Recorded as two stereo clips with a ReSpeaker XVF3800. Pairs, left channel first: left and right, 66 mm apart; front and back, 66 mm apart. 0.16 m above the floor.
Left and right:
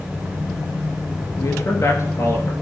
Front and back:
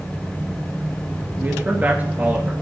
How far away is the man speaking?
About 3 m.